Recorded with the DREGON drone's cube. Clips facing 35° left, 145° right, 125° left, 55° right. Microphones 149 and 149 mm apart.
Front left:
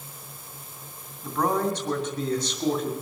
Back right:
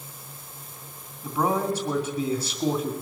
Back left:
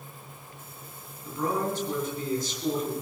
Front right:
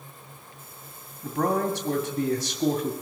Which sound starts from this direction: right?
A man speaking, at 1.2 s.